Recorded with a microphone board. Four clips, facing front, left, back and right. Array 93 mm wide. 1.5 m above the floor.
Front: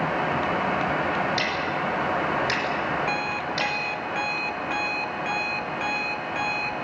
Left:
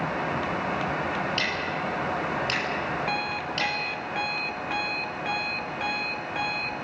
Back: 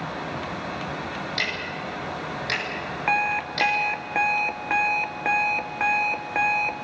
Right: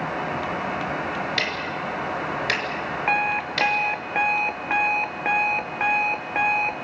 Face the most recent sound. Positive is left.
turn(degrees=-130)